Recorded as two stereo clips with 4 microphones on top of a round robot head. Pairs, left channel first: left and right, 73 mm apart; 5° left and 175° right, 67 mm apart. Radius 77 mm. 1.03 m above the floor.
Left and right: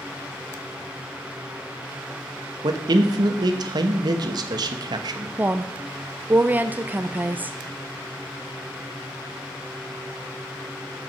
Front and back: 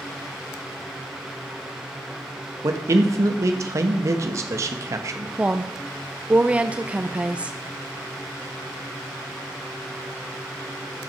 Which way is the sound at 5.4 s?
125° right.